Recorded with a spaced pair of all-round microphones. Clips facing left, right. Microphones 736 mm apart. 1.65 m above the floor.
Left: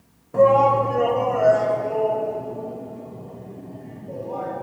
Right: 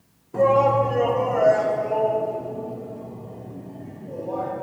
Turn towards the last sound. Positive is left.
turn(degrees=-70)  # may be behind; listen again after turning